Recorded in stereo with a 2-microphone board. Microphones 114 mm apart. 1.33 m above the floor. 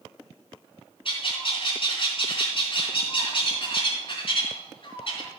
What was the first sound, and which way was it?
A bird, 55° left (ahead or behind).